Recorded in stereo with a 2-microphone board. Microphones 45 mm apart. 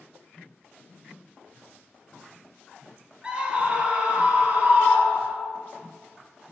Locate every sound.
3.2 s a scream: 20° right (ahead or behind), 2.5 m; by 5.5 s 35° right (ahead or behind), 4 m